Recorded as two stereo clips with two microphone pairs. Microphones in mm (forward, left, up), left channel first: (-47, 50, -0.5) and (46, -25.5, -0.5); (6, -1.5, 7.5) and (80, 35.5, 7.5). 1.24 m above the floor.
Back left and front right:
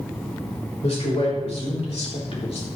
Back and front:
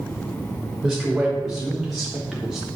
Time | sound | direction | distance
0.8 | a man speaking | 115° left | 5 m